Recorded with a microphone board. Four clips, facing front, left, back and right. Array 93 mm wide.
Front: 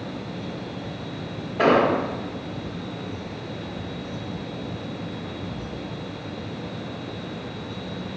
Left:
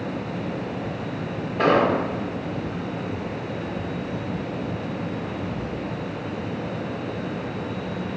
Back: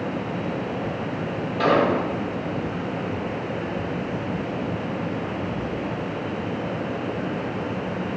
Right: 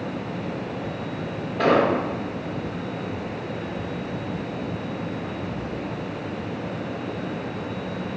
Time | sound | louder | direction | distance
1.6 | an explosion | even, front 1 dB | 25° left | 1.0 m